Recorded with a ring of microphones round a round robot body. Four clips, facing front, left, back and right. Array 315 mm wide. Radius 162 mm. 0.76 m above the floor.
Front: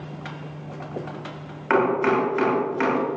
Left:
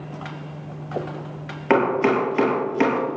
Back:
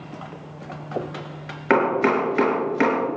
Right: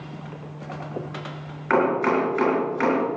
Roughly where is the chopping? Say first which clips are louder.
Left 2 dB, back 1 dB; behind left.